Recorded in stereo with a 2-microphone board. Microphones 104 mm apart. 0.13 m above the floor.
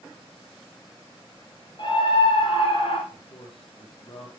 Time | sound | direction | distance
1.8 | a scream | 45° left (ahead or behind) | 3 m
3.1 | a man speaking | 60° left (ahead or behind) | 3.5 m